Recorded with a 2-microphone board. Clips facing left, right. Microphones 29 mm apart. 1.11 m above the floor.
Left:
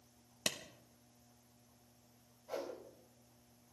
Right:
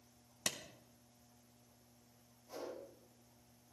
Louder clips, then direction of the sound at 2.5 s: Left 4 dB; 90° left.